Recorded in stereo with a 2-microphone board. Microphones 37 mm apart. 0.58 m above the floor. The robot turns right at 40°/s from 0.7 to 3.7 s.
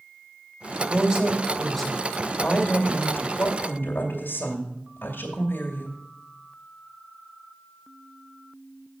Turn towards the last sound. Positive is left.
turn(degrees=90)